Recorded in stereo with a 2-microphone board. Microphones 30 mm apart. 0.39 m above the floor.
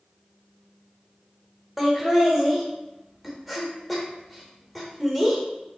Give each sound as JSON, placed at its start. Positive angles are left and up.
{"t": 1.8, "sound": "laughter", "side_deg": -5, "distance_m": 0.9}